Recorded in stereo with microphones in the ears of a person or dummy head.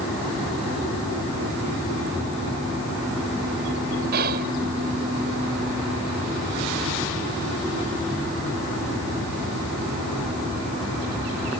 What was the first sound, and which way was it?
Whispering, 55° right (ahead or behind).